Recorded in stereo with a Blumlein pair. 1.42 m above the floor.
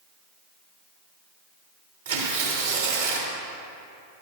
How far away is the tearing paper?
About 2.5 m.